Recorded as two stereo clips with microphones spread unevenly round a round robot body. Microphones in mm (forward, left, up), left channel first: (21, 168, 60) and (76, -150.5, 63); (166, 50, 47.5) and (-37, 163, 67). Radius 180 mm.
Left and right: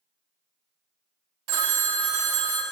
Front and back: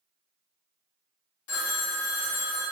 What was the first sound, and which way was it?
A phone ringing, 65° right.